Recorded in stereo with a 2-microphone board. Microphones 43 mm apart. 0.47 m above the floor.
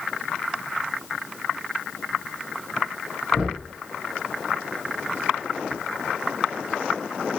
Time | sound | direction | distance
3.3 | knocking | 10° right (ahead or behind) | 7.5 m